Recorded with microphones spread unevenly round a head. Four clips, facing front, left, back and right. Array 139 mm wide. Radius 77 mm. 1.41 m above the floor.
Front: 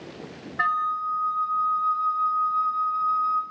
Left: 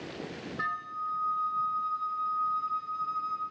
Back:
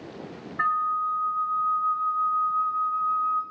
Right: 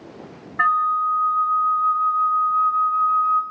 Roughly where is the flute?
Ahead right.